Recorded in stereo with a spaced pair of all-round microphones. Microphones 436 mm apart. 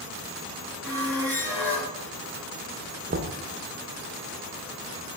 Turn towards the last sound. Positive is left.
turn(degrees=-25)  # may be behind; listen again after turning